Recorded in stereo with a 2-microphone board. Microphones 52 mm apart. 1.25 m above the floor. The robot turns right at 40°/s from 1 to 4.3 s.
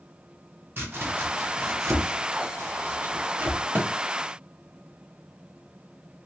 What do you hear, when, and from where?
0.8 s chopping: 40° right (ahead or behind), 1.0 m; by 3.6 s 30° right (ahead or behind), 1.0 m
3.8 s a thud: 45° right (ahead or behind), 0.9 m